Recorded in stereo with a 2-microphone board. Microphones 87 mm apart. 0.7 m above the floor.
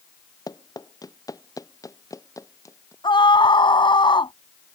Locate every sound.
0.5 s running footsteps: 50° left (ahead or behind); by 2.9 s 40° left (ahead or behind)
3.0 s a scream: 70° left (ahead or behind)